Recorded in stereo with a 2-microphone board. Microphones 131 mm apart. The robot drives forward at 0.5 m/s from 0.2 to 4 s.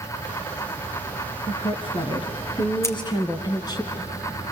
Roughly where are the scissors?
Left.